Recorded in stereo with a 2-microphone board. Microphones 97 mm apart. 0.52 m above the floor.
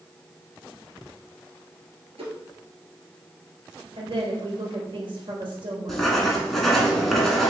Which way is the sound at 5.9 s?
Centre (ahead or behind).